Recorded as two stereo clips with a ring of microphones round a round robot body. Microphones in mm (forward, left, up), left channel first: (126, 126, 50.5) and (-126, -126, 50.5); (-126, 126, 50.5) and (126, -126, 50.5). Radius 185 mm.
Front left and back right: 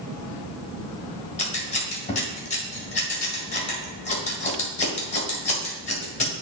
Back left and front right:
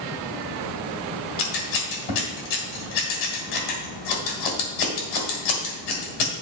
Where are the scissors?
115° left, 1.9 m.